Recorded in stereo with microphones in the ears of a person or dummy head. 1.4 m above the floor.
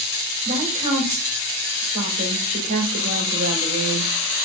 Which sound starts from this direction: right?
A woman speaking, at 0.5 s.